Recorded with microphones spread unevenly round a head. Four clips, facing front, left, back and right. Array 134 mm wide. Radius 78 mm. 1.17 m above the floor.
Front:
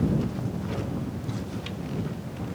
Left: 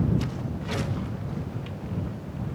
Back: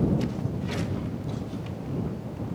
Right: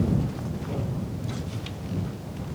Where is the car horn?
I don't hear a car horn.